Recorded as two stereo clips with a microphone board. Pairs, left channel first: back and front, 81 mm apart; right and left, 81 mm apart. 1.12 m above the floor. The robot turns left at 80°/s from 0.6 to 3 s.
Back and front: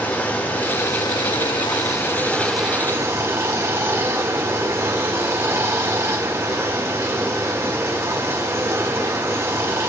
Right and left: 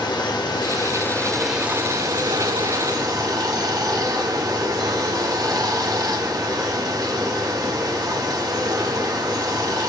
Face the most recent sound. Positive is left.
turn(degrees=55)